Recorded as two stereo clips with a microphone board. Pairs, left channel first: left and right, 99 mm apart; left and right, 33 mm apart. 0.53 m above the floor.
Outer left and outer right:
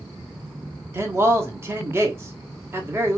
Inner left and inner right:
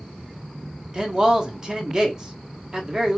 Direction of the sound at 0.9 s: 25° right (ahead or behind).